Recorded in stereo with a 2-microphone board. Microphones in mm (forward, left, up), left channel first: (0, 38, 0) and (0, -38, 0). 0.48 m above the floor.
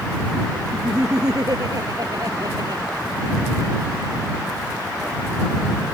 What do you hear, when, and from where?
0.7 s laughter: 55° right (ahead or behind)